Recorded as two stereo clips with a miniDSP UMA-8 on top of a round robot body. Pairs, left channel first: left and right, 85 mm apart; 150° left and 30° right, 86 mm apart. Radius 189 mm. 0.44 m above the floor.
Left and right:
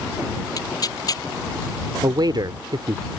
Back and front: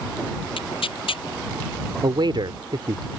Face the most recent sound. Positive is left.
turn(degrees=-55)